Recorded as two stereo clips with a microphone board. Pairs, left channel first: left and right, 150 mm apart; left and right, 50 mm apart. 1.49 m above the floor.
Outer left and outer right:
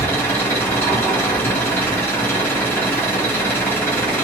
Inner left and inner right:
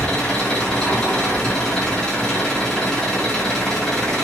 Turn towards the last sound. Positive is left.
turn(degrees=15)  # may be behind; listen again after turning